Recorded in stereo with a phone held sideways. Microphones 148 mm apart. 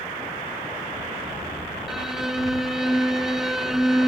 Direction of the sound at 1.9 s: 5° right (ahead or behind).